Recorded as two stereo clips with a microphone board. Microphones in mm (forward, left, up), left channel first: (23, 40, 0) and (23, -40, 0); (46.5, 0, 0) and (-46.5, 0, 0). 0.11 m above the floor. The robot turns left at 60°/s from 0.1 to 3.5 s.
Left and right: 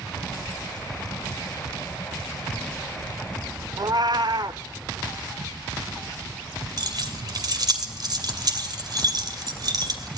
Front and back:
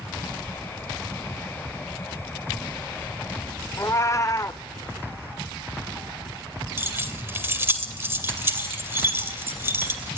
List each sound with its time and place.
3.8 s a cat meowing: 55° right, 0.6 m
6.8 s keys jangling: 120° right, 2.5 m